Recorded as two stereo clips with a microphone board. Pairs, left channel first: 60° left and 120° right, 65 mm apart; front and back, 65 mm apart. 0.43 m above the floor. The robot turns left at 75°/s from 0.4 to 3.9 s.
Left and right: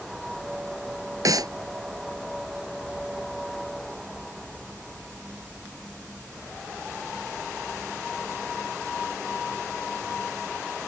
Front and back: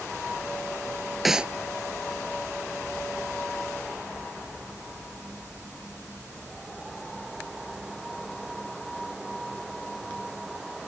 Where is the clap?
95° right; by 1.5 s 115° right.